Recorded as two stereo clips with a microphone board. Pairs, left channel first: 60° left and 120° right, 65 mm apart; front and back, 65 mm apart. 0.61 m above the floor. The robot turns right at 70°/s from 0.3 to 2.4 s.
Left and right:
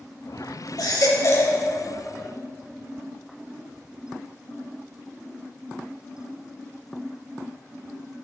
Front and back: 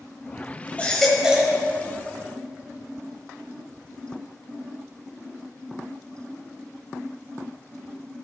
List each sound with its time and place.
0.8 s a baby crying: 65° left, 1.3 m; by 1.6 s 120° left, 1.3 m